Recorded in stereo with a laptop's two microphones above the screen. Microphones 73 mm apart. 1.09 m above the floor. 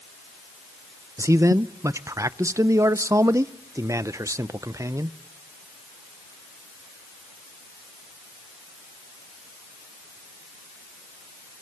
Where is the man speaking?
45° right (ahead or behind), 0.5 m.